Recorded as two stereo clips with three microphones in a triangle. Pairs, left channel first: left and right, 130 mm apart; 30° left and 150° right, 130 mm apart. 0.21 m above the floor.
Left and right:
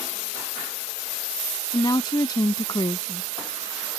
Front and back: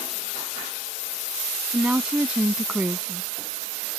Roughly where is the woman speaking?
Behind left.